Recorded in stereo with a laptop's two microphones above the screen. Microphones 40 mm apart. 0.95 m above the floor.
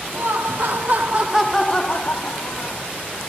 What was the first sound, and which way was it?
Laughter, 65° right (ahead or behind).